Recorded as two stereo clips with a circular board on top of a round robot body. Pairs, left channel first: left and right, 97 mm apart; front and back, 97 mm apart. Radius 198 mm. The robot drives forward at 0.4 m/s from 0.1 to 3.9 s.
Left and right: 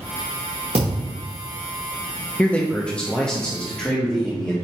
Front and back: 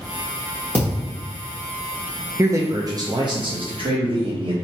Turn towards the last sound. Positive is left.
turn(degrees=170)